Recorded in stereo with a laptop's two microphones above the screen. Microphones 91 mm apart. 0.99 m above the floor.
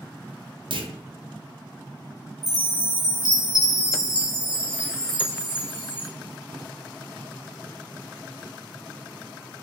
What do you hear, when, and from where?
0.7 s a clunk: 70° right (ahead or behind), 0.5 m
2.4 s a chime: 50° right (ahead or behind), 1.2 m